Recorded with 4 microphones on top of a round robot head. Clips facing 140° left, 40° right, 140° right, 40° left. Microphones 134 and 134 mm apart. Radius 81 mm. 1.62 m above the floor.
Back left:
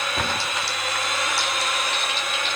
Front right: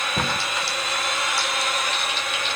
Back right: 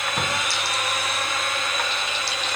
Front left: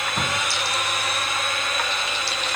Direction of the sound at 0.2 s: 55° right.